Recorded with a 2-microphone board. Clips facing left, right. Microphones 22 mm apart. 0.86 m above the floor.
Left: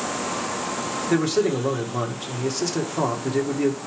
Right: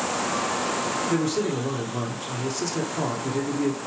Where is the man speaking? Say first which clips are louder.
Left 7 dB; 20° left (ahead or behind), 1.8 m.